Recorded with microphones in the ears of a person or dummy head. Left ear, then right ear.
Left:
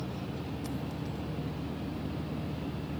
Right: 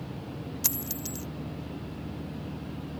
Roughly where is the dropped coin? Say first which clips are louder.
Right 4 dB; right.